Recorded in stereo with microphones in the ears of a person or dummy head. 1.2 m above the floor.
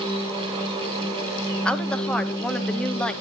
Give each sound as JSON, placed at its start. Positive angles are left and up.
{"t": 1.6, "sound": "a woman speaking", "side_deg": 10, "distance_m": 0.9}